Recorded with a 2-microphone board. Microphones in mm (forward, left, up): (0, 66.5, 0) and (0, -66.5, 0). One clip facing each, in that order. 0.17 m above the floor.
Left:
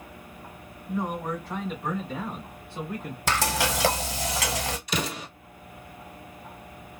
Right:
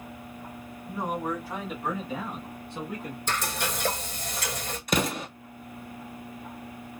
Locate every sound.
0.9 s a man speaking: 10° right (ahead or behind), 1.2 m; by 3.2 s centre (ahead or behind), 1.6 m
3.3 s frying: 80° left, 0.8 m
4.9 s an explosion: 50° right (ahead or behind), 0.7 m